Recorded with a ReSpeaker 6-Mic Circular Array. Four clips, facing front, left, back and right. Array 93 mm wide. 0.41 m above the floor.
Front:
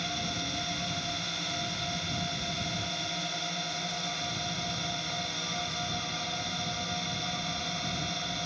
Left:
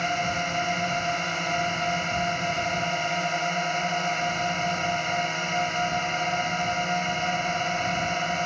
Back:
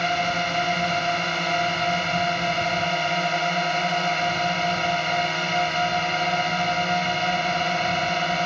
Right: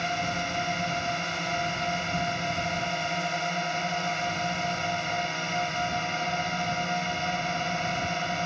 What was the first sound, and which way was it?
A drone, 170° left.